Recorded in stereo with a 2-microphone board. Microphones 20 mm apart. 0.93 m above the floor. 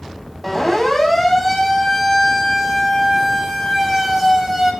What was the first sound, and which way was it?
A siren, 10° left (ahead or behind).